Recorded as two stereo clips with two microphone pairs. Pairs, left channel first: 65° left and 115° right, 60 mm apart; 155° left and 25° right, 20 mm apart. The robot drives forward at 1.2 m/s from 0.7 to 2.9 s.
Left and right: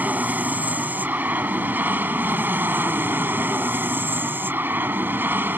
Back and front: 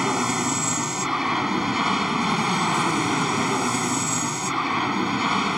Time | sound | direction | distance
0.0 | an aircraft | 80° right | ?